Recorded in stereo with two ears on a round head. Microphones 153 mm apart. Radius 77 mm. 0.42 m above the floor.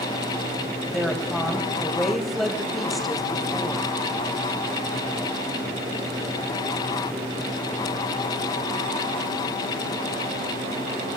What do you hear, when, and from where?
0.9 s a woman speaking: centre (ahead or behind), 2.5 m